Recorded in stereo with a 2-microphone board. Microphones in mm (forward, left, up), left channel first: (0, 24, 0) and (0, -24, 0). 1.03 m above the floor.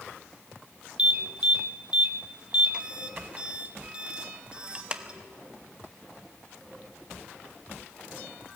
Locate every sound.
1.0 s an alarm: 20° right (ahead or behind), 0.9 m